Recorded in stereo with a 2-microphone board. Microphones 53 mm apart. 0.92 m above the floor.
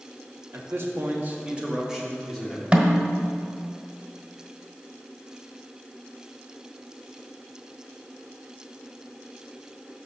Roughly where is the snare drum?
Right.